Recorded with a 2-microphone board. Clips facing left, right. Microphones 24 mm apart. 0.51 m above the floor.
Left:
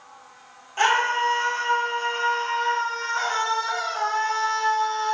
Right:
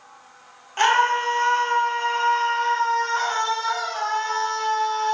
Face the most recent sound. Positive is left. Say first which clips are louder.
# right 2 dB
turn(degrees=-25)  # may be behind; listen again after turning